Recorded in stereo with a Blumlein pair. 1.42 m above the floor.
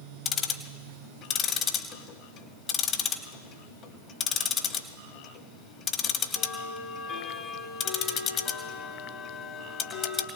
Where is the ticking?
30° left, 1.2 m.